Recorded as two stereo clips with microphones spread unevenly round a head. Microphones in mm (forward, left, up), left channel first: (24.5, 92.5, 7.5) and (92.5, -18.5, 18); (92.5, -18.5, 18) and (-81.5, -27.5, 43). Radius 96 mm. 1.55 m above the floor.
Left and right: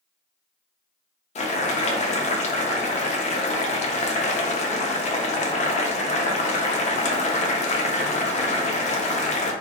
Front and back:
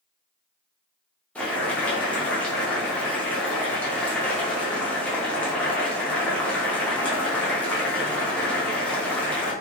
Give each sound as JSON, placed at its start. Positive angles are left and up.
{"t": 1.4, "sound": "boiling", "azimuth_deg": 85, "distance_m": 0.7}